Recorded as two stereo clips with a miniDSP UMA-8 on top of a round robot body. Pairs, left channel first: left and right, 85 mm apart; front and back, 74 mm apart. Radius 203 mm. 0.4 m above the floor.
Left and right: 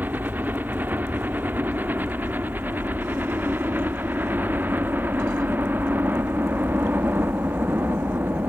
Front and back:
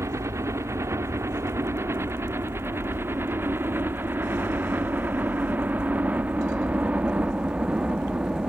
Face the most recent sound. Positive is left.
turn(degrees=-120)